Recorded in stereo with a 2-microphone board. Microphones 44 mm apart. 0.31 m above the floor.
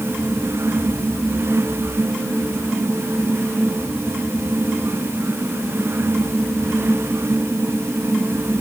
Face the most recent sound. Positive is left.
No sound to turn to.